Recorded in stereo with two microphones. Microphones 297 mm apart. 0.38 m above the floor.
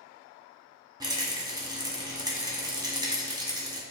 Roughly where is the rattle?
Centre.